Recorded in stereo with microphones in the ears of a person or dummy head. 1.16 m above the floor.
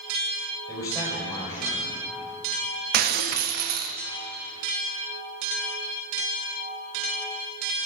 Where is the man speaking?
25° left (ahead or behind), 4.5 m.